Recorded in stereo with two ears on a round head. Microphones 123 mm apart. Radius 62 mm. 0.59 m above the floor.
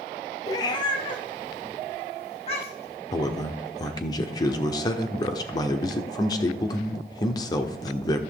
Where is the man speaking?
30° left (ahead or behind), 1.2 m.